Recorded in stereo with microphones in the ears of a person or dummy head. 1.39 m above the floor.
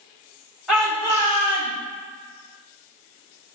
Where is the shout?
5° right (ahead or behind), 1.7 m; by 1.7 s 60° left (ahead or behind), 1.3 m.